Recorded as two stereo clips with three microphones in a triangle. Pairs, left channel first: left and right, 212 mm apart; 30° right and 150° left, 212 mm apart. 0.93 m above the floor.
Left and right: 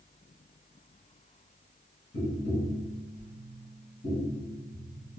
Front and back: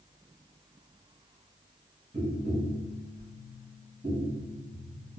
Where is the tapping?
110° left, 1.6 m.